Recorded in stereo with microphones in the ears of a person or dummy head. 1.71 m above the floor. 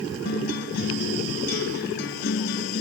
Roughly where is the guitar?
Left.